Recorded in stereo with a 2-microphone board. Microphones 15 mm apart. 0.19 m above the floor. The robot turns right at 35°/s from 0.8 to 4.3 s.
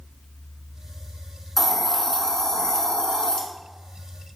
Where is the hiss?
15° left, 0.6 m; by 3.4 s 80° left, 0.6 m.